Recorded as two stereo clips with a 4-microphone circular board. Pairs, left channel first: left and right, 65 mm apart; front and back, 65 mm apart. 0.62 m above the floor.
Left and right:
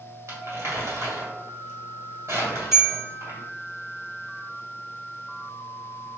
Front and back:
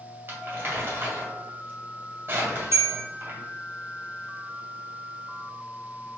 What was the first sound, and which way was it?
Crumpling, 135° right.